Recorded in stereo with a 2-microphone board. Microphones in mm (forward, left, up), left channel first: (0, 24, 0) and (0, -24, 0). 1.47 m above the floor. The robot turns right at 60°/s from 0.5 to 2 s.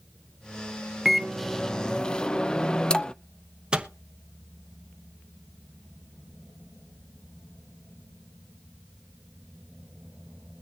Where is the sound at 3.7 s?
20° right (ahead or behind), 1.0 m.